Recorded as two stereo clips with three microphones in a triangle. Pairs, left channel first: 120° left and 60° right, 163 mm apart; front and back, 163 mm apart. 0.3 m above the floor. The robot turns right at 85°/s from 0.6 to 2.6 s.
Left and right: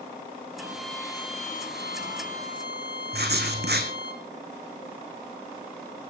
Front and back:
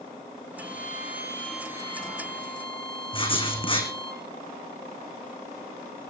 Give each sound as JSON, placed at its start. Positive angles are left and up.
{"t": 0.6, "sound": "a violin", "azimuth_deg": 10, "distance_m": 2.5}
{"t": 3.1, "sound": "writing", "azimuth_deg": -60, "distance_m": 3.0}